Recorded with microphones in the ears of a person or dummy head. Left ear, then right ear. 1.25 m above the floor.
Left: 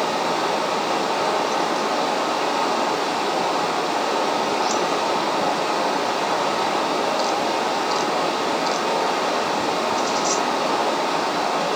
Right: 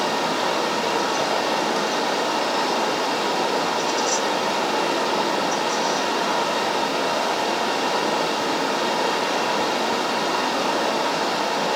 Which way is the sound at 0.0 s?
5° left (ahead or behind).